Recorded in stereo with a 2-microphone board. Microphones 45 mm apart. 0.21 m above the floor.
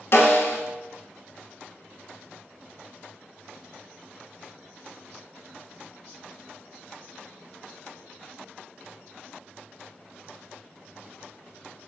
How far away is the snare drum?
About 0.7 m.